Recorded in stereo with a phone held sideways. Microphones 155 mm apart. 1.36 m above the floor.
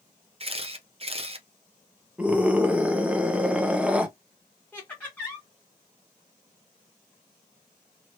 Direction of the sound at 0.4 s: 40° right (ahead or behind).